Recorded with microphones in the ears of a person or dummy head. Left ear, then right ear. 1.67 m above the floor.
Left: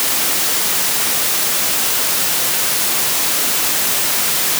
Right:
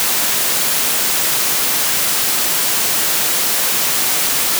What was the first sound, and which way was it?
Only background noise.